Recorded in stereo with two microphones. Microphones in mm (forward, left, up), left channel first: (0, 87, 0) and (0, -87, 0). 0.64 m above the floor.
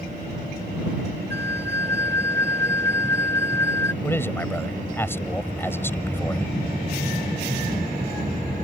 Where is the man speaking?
15° left (ahead or behind).